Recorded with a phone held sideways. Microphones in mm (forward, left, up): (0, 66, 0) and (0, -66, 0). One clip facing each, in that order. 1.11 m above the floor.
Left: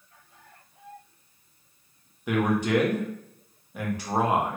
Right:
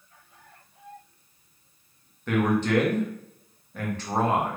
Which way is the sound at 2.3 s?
10° left (ahead or behind).